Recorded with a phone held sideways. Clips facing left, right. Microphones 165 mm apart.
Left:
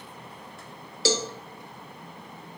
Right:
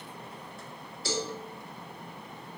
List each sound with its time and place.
1.1 s a cowbell: 80° left, 1.0 m